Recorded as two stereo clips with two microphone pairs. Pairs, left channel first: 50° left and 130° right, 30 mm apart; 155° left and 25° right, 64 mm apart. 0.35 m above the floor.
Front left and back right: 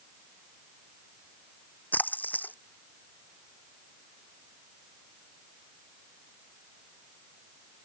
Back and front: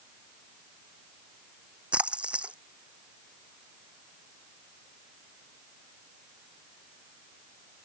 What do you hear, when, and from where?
1.9 s a splash: 50° left